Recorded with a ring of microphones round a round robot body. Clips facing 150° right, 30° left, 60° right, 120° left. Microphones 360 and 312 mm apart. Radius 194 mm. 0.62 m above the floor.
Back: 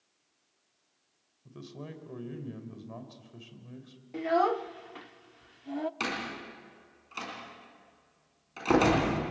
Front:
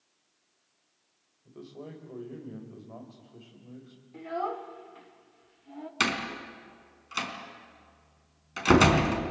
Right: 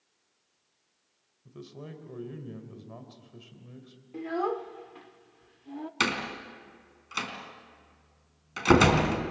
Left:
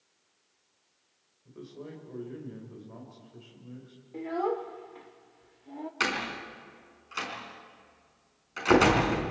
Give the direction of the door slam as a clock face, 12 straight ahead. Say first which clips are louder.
Front 3 dB, right 3 dB; 1 o'clock.